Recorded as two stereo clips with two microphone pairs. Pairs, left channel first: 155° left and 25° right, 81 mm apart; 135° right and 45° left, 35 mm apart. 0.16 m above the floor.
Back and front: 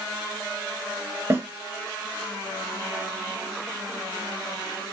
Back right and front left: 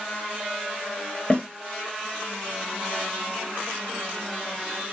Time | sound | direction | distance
1.3 | a snare drum | 85° right | 1.2 m